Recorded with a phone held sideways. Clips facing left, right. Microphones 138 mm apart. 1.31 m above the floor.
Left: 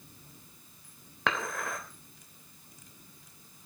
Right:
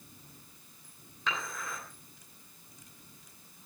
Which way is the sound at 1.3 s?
75° left (ahead or behind).